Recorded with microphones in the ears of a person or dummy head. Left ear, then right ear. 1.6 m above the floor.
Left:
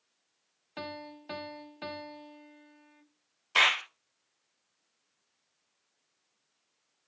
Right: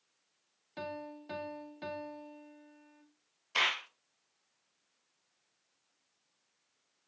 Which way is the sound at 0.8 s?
30° left (ahead or behind).